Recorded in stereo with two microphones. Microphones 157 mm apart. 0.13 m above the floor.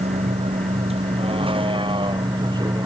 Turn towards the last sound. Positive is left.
turn(degrees=-25)  # may be behind; listen again after turning